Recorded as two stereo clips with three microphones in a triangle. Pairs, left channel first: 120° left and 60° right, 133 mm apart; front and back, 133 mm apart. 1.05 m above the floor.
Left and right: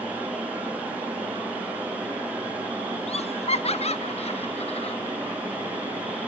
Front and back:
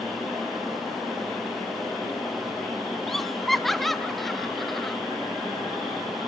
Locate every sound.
3.1 s laughter: 90° left, 0.6 m